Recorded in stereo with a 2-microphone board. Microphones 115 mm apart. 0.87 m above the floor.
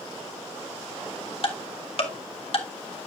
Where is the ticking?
55° left (ahead or behind), 1.5 m.